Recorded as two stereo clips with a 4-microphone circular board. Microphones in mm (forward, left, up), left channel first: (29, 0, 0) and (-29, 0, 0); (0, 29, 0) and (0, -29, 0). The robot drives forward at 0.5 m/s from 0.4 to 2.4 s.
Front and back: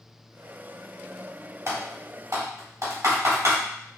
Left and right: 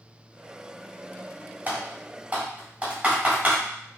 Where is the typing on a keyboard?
150° right, 1.7 m; by 3.5 s 155° right, 2 m.